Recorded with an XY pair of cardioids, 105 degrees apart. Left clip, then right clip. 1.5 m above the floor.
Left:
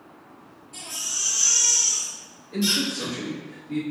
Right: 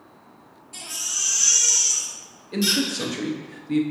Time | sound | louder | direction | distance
0.7 | a baby crying | right 2 dB | 45° right | 1.6 m
2.5 | a man speaking | right 1 dB | 55° right | 1.0 m